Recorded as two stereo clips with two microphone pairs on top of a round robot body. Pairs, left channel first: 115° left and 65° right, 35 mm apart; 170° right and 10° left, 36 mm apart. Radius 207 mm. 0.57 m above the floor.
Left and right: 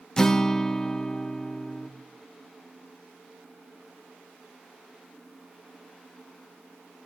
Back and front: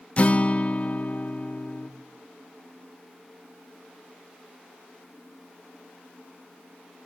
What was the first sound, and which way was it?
A guitar, straight behind.